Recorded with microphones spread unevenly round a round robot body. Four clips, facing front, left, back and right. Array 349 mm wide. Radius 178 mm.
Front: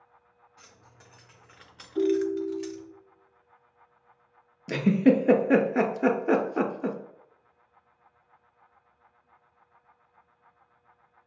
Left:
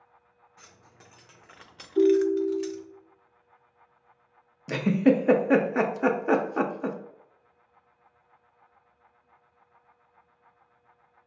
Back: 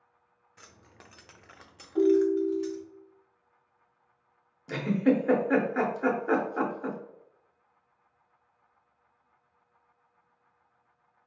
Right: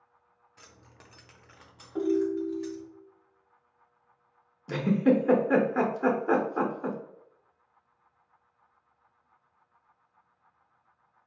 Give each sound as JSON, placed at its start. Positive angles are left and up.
{"t": 0.6, "sound": "keys jangling", "azimuth_deg": -155, "distance_m": 0.8}
{"t": 1.9, "sound": "a ringtone", "azimuth_deg": -115, "distance_m": 0.8}
{"t": 4.7, "sound": "a giggle", "azimuth_deg": 25, "distance_m": 0.5}